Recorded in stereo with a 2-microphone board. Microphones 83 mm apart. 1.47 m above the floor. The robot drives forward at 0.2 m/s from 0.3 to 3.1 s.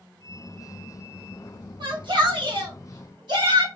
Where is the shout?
75° right (ahead or behind), 1.2 m; by 3.7 s 65° right (ahead or behind), 1.3 m.